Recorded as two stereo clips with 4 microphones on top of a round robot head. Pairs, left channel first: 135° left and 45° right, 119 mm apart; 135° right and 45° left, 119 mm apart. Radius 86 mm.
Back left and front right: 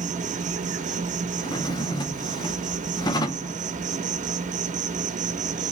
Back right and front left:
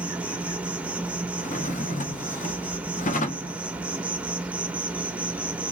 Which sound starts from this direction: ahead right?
An insect, at 0.0 s.